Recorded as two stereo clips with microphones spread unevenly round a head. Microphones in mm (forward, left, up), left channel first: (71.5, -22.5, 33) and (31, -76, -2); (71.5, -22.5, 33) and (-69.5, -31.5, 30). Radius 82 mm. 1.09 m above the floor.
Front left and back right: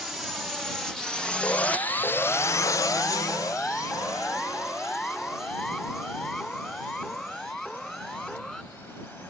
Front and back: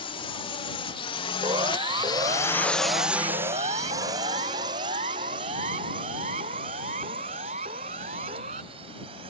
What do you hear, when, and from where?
0.0 s a drone: 45° right; by 9.3 s 130° left
1.4 s a siren: 120° left; by 8.6 s 140° left